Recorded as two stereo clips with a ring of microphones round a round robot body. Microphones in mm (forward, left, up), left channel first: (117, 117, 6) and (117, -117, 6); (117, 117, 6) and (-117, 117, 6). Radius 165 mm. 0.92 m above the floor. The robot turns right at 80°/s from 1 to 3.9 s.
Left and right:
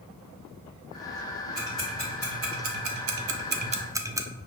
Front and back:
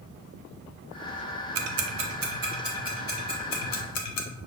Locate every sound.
1.6 s ticking: 160° left, 0.5 m; by 4.3 s 10° right, 0.5 m